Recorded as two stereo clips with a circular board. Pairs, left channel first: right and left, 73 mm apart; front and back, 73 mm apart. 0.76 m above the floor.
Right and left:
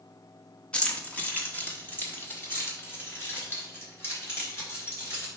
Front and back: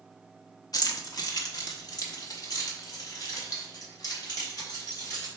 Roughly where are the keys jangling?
Ahead.